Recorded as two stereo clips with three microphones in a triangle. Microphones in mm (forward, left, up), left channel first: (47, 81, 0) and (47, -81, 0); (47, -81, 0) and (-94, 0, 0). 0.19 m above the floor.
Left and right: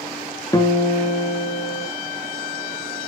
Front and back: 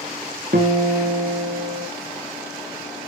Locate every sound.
0.5 s a guitar: 155° left, 2.5 m